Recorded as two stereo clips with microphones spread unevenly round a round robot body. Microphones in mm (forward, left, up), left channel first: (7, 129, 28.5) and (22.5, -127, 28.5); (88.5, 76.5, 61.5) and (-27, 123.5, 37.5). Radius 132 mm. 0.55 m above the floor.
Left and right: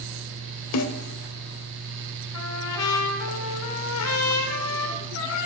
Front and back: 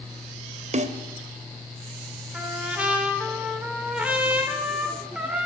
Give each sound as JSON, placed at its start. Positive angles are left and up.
{"t": 0.7, "sound": "a snare drum", "azimuth_deg": 130, "distance_m": 0.8}
{"t": 2.3, "sound": "a trumpet", "azimuth_deg": 85, "distance_m": 1.7}